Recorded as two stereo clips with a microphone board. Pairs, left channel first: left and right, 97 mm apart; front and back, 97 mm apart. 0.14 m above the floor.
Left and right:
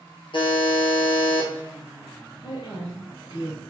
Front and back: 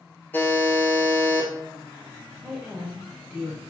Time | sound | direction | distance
0.3 | a buzzer | 70° left | 1.5 m
2.4 | a woman speaking | 95° left | 2 m